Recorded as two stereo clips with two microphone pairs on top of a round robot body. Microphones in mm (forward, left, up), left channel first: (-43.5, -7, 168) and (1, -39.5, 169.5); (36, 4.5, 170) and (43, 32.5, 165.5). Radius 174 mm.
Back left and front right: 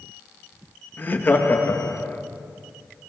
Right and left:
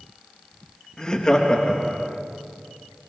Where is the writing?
No writing in this recording.